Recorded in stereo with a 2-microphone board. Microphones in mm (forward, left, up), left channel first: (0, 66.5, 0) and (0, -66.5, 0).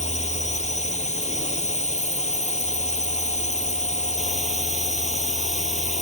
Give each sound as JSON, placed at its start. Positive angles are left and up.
{"t": 0.0, "sound": "a drone", "side_deg": 60}